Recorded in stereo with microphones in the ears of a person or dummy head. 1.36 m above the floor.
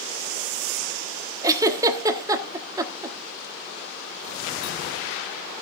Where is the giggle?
15° right (ahead or behind), 1.3 m.